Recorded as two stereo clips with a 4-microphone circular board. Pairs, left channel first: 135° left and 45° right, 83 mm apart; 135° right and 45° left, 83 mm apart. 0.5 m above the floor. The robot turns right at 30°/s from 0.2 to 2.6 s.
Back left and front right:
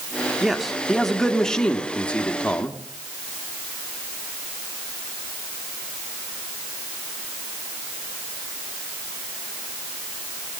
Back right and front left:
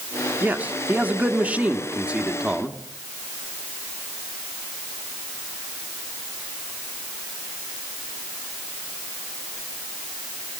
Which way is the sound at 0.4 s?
35° left.